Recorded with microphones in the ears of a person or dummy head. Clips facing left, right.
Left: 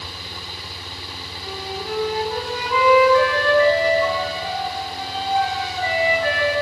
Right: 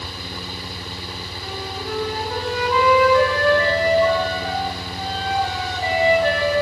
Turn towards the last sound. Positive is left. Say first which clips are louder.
# left 1 dB
turn(degrees=-5)  # may be behind; listen again after turning